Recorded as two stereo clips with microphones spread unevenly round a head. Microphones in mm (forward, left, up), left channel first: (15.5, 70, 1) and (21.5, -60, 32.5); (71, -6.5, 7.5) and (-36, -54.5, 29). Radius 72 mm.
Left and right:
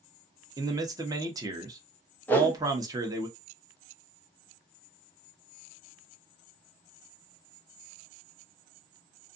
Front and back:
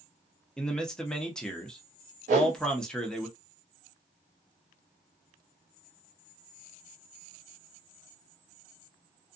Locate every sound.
0.6 s a man speaking: 30° right, 0.8 m
2.3 s a whoosh: 165° left, 0.6 m